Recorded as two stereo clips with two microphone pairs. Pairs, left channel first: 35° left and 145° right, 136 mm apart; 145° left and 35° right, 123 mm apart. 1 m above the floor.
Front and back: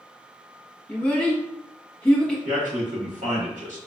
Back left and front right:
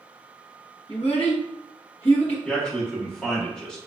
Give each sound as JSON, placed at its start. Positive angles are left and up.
{"t": 0.9, "sound": "a child speaking", "azimuth_deg": 115, "distance_m": 0.9}
{"t": 2.5, "sound": "a man speaking", "azimuth_deg": -130, "distance_m": 1.4}